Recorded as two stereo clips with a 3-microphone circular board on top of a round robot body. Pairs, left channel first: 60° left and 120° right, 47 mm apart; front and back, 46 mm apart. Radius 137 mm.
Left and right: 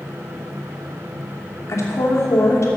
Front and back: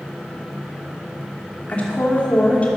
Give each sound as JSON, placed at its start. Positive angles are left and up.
{"t": 1.7, "sound": "a woman speaking", "azimuth_deg": 60, "distance_m": 2.5}